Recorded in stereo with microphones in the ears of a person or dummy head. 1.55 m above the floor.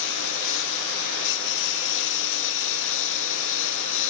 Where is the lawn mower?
70° left (ahead or behind).